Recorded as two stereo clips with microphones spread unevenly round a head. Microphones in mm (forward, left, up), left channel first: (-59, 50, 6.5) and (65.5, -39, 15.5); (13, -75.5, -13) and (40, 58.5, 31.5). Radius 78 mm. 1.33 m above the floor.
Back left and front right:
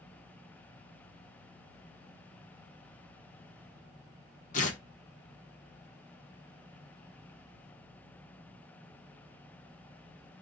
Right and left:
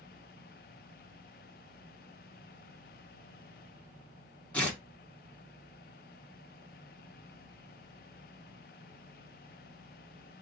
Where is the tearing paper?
175° right, 1.6 m.